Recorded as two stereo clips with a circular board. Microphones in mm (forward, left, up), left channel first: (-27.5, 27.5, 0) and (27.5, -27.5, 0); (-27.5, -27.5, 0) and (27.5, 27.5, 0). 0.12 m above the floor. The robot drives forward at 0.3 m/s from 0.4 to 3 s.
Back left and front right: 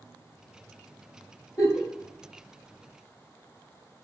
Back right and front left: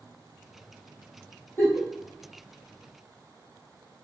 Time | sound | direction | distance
1.6 | a giggle | 155° left | 1.9 m